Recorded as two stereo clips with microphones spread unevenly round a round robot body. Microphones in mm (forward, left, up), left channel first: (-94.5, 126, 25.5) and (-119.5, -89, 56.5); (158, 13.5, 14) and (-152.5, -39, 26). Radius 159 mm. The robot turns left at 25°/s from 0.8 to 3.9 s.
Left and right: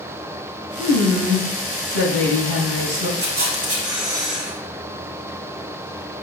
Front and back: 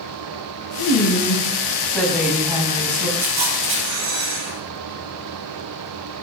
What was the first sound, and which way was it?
A woman speaking, 50° right.